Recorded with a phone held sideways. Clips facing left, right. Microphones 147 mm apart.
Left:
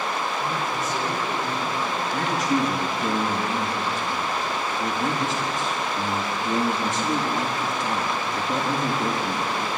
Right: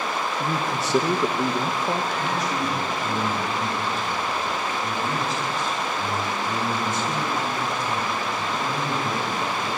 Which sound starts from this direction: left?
A man speaking, at 2.1 s.